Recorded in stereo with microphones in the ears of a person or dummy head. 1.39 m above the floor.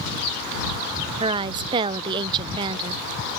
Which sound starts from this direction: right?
A woman speaking, at 1.2 s.